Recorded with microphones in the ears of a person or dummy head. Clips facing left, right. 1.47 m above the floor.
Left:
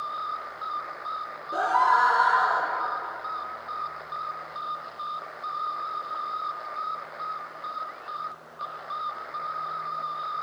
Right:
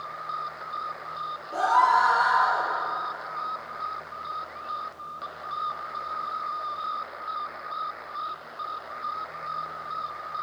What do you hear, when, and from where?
1.5 s a scream: 15° left (ahead or behind), 1.4 m; by 2.7 s 50° left (ahead or behind), 2.5 m